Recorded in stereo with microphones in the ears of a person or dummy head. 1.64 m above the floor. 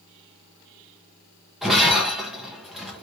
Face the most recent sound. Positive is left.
turn(degrees=5)  # may be behind; listen again after turning